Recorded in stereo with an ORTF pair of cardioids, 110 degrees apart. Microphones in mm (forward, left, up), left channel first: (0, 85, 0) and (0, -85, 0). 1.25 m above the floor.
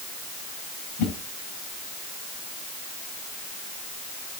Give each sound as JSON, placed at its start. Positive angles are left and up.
{"t": 1.0, "sound": "a whoosh", "azimuth_deg": 70, "distance_m": 3.5}